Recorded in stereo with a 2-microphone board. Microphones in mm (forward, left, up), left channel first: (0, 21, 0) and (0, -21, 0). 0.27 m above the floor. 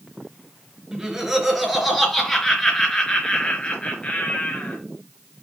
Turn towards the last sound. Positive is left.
turn(degrees=40)  # may be behind; listen again after turning